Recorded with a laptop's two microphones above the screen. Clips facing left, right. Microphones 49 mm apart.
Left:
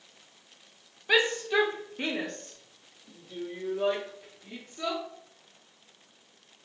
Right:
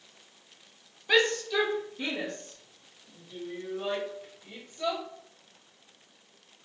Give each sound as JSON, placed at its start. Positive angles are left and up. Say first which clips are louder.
{"t": 1.1, "sound": "a shout", "louder": "even", "side_deg": 10, "distance_m": 0.7}